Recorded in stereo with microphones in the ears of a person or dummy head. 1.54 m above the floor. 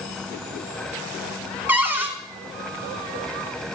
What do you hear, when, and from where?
1.7 s a cupboard door: 10° right (ahead or behind), 1.5 m